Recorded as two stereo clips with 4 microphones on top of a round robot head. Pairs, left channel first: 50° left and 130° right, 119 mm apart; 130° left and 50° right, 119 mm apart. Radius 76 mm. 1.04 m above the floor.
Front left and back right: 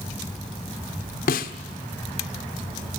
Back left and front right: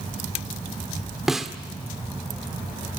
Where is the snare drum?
40° left, 1.5 m.